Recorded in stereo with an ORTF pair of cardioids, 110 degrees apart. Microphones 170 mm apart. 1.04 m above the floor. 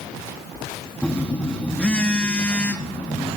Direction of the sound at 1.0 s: 10° left.